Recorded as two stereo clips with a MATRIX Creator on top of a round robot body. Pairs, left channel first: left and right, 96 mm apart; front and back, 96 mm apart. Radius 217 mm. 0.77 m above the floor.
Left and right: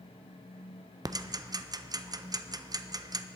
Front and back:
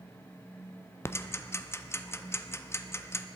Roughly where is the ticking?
Ahead right.